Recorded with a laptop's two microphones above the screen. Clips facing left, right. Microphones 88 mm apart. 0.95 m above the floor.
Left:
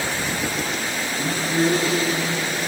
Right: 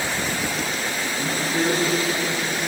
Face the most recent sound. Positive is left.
turn(degrees=30)  # may be behind; listen again after turning